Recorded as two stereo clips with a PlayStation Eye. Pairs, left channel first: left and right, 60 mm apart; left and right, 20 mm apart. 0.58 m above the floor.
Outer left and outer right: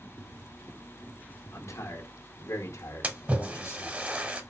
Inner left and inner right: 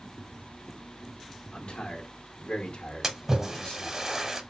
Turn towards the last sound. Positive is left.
turn(degrees=-25)  # may be behind; listen again after turning